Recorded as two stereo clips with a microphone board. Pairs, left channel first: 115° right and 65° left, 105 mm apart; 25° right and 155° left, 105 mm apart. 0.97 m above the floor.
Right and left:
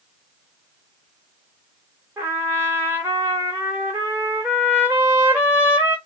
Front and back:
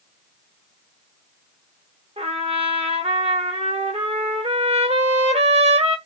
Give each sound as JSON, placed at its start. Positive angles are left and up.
{"t": 2.2, "sound": "a trumpet", "azimuth_deg": 140, "distance_m": 2.0}